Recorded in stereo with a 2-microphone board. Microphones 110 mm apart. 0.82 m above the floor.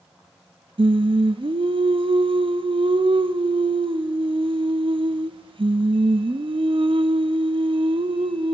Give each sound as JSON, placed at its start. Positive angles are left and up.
{"t": 0.8, "sound": "singing", "side_deg": -50, "distance_m": 0.5}